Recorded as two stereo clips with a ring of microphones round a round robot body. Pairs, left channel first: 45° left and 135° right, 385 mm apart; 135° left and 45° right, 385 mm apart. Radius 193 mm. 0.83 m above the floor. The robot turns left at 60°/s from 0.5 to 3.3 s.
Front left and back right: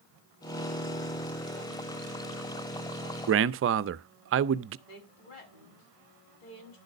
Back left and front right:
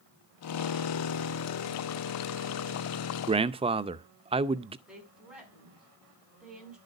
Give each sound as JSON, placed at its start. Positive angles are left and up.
{"t": 3.3, "sound": "a man speaking", "azimuth_deg": -110, "distance_m": 0.5}
{"t": 4.9, "sound": "a woman speaking", "azimuth_deg": 45, "distance_m": 6.5}